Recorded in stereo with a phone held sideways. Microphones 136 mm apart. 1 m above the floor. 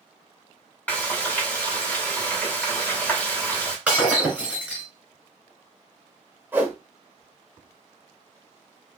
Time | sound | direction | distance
0.9 | frying | 10° left (ahead or behind) | 1.1 m
3.9 | breaking glass | 10° right (ahead or behind) | 1.8 m
6.5 | a whoosh | 15° right (ahead or behind) | 0.9 m